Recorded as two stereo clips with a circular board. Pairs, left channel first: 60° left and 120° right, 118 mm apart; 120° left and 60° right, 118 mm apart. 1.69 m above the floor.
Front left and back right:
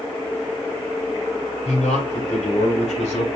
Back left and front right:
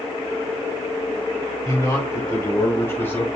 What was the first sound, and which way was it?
A man speaking, 60° left.